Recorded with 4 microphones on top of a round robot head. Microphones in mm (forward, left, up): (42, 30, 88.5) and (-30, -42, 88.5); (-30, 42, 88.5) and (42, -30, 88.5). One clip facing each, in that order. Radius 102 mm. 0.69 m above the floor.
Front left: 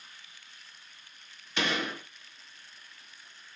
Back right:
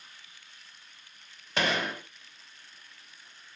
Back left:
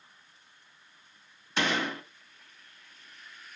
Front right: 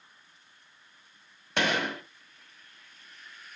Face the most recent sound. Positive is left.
turn(degrees=-85)